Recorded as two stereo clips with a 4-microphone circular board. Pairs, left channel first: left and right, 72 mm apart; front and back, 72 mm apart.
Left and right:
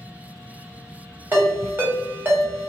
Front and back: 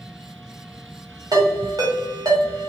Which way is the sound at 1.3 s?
150° right.